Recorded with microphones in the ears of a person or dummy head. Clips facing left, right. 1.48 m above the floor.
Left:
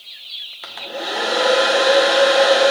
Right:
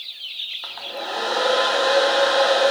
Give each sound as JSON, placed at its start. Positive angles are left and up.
{"t": 0.6, "sound": "a hair dryer", "side_deg": 35, "distance_m": 1.3}